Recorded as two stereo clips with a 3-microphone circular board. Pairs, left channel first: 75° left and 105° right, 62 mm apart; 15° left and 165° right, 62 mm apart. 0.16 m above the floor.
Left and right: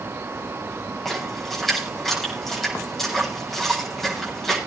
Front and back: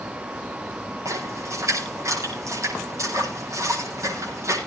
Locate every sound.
1.1 s a splash: 160° left, 8 m